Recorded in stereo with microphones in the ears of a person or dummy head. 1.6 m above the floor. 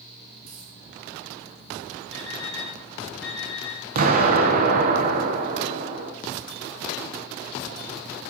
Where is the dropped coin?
45° right (ahead or behind), 2 m.